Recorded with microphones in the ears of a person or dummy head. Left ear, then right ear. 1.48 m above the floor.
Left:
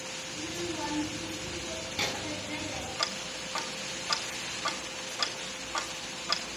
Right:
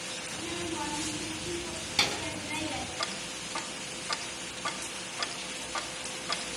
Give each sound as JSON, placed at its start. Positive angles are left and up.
{"t": 0.3, "sound": "a child speaking", "side_deg": -35, "distance_m": 8.5}
{"t": 3.0, "sound": "ticking", "side_deg": 5, "distance_m": 1.2}